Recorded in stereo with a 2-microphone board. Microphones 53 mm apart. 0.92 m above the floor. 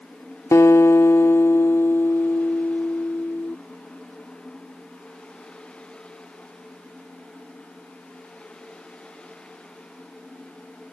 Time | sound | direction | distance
0.5 | a guitar | 70° left (ahead or behind) | ?